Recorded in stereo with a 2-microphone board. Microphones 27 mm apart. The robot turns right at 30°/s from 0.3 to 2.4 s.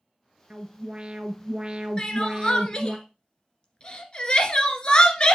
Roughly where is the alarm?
Right.